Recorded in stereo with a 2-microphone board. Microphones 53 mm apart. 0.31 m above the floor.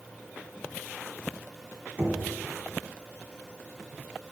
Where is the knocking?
30° right (ahead or behind), 2.0 m.